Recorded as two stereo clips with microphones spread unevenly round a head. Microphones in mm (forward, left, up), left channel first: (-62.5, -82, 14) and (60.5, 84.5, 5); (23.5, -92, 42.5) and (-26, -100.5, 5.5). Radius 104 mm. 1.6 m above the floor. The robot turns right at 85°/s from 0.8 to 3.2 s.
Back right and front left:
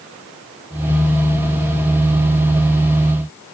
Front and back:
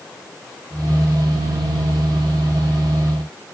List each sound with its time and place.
Only background noise.